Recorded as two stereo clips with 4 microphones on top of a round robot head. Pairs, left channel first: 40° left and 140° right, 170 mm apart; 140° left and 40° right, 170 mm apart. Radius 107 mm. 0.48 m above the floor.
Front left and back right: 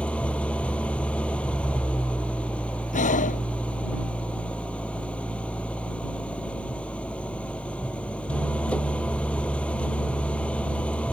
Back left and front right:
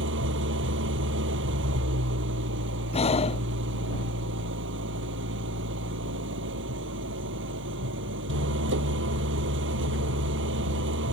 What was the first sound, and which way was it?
An engine running, 45° right.